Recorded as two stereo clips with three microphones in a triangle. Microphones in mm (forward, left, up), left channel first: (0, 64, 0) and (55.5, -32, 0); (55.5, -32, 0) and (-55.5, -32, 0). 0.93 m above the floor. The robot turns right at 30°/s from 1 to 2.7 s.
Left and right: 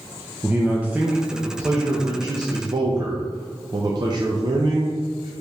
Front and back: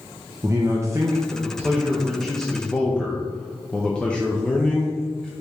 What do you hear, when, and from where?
0.4 s a man speaking: 130° right, 0.6 m; by 5.3 s 80° right, 0.6 m